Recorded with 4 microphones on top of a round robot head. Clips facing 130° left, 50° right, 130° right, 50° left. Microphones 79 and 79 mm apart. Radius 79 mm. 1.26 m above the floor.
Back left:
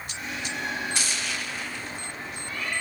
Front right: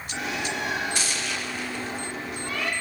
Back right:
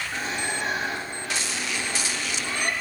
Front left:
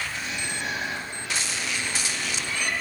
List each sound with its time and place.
0.1 s a bird: 75° right, 3 m